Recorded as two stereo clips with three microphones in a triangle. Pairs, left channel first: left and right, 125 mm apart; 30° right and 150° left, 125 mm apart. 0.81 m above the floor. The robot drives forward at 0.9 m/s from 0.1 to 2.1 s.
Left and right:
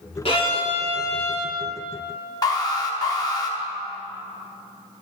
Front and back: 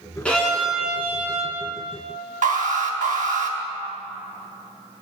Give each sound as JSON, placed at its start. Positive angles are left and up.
{"t": 0.2, "sound": "a violin", "azimuth_deg": 50, "distance_m": 1.7}
{"t": 2.4, "sound": "an alarm", "azimuth_deg": 150, "distance_m": 0.9}